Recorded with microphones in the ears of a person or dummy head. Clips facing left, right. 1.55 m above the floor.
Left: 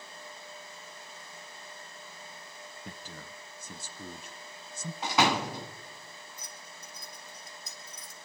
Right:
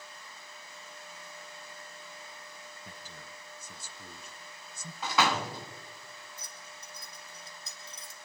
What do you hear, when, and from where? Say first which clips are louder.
2.9 s a man speaking: left 3 dB; 50° left (ahead or behind), 0.9 m
5.0 s a door slam: left 2 dB; 20° left (ahead or behind), 2 m
6.4 s keys jangling: left 1 dB; 25° right (ahead or behind), 4 m